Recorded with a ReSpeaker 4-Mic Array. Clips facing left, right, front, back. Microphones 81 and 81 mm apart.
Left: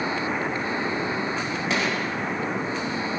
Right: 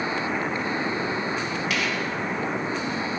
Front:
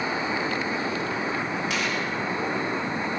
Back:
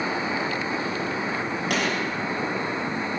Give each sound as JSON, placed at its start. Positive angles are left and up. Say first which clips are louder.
{"t": 1.7, "sound": "a gunshot", "louder": "left 4 dB, back 2 dB", "azimuth_deg": 150, "distance_m": 4.5}